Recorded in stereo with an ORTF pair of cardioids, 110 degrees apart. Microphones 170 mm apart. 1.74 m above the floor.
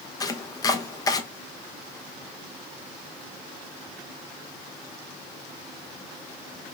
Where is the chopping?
20° left, 0.5 m.